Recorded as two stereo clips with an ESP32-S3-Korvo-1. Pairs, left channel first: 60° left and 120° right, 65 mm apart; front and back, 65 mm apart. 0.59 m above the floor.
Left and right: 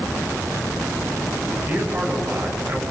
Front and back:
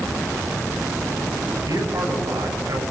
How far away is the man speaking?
About 8 m.